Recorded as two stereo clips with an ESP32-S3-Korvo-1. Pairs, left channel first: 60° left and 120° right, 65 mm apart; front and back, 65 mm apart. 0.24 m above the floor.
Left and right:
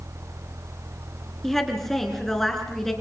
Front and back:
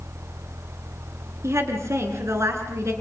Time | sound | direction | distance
1.4 | a woman speaking | 145° left | 4 m